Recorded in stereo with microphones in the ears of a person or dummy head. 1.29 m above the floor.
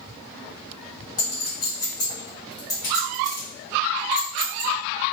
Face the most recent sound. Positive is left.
turn(degrees=20)  # may be behind; listen again after turning